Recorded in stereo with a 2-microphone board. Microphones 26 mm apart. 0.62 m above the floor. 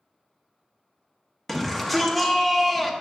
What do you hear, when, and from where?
1.5 s a shout: centre (ahead or behind), 1.0 m